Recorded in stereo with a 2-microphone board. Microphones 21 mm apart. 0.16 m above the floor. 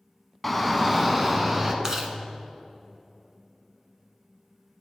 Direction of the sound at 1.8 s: 25° right (ahead or behind).